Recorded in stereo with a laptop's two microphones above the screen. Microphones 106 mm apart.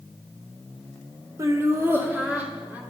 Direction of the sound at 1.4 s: 30° right (ahead or behind).